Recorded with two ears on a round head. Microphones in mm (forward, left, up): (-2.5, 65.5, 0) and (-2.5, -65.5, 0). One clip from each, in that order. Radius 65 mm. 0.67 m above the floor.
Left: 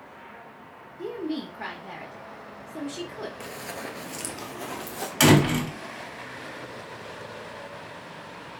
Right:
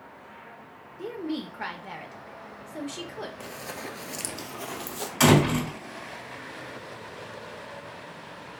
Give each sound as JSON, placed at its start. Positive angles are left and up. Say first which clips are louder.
{"t": 1.0, "sound": "a woman speaking", "louder": "left 1 dB", "side_deg": -30, "distance_m": 0.9}
{"t": 3.4, "sound": "running footsteps", "louder": "left 1 dB", "side_deg": 5, "distance_m": 0.7}
{"t": 5.2, "sound": "a door slam", "louder": "left 1 dB", "side_deg": 15, "distance_m": 2.0}